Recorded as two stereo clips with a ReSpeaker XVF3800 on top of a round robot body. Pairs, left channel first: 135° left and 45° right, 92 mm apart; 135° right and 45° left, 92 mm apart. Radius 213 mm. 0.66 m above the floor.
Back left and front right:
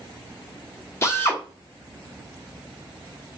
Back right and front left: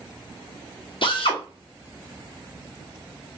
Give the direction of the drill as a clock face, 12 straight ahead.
5 o'clock.